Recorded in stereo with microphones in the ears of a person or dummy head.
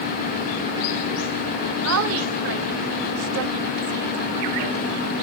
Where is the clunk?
I don't hear a clunk.